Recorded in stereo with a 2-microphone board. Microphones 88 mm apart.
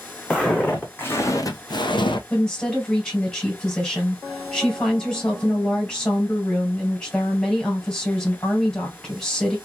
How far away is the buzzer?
No buzzer in this recording.